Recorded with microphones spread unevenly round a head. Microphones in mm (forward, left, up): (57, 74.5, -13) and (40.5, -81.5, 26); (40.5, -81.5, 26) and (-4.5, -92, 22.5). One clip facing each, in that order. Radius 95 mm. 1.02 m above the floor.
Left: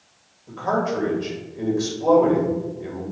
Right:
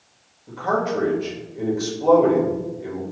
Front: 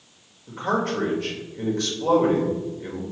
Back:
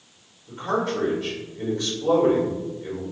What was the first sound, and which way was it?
A man speaking, 10° right.